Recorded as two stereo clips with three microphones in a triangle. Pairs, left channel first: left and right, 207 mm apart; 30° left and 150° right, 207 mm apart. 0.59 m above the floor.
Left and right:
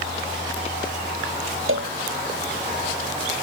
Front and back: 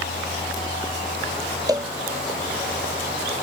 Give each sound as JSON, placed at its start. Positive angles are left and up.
{"t": 1.7, "sound": "a cowbell", "azimuth_deg": -75}